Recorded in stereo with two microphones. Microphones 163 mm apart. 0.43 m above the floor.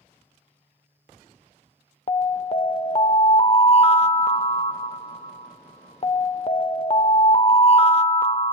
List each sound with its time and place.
2.1 s an alarm: 40° left (ahead or behind), 0.5 m